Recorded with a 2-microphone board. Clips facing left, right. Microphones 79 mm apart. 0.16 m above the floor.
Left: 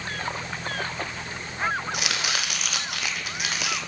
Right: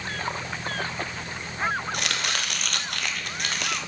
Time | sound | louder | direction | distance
1.9 | chopping | even | 5° left (ahead or behind) | 1.2 m